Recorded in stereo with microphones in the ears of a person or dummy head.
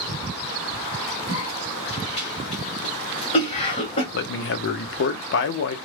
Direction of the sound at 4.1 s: 50° left (ahead or behind).